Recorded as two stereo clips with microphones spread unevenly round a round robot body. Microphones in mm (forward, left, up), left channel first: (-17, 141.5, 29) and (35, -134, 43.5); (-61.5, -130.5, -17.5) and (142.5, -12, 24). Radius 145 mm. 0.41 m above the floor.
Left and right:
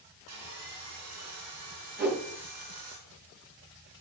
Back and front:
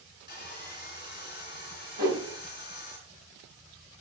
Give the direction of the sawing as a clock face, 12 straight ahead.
4 o'clock.